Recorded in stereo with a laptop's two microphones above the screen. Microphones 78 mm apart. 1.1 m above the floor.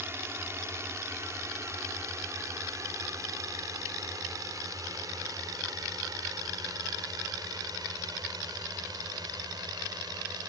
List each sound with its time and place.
0.0 s a drone: 35° right (ahead or behind); by 10.5 s 60° right (ahead or behind)